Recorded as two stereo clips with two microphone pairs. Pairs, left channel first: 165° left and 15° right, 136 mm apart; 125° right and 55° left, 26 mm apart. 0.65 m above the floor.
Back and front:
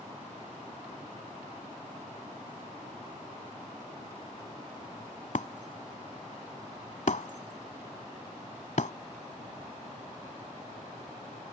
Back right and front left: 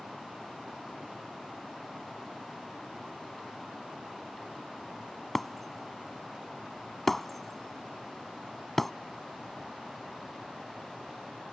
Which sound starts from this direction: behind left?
Breaking glass, at 5.3 s.